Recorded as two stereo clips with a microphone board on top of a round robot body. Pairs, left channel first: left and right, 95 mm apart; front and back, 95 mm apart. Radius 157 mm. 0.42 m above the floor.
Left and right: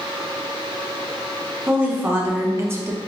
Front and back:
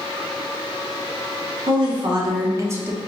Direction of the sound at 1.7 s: 160° right.